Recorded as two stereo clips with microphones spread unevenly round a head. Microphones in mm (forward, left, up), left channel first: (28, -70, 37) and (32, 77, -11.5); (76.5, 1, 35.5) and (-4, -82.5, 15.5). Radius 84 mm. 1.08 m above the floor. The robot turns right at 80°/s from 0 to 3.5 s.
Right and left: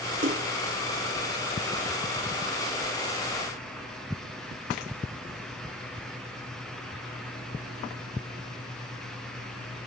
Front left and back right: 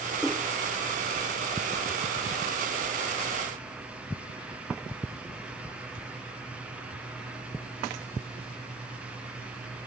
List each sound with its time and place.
0.2 s a splash: 135° left; by 0.5 s 155° left